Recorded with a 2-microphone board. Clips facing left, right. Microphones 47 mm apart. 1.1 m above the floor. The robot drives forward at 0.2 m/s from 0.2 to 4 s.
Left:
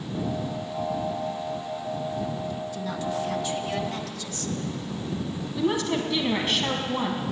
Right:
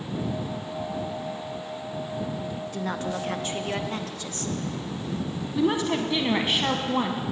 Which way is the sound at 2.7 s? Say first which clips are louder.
Right 2 dB; 45° right (ahead or behind).